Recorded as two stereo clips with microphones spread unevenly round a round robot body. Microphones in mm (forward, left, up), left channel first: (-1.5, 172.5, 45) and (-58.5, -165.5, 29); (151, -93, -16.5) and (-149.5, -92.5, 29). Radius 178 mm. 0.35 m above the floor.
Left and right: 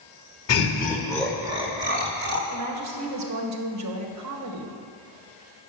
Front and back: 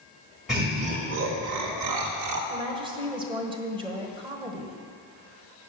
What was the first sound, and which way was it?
Laughter, 80° left.